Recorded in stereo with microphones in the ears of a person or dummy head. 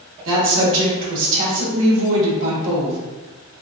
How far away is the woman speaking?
About 1.1 m.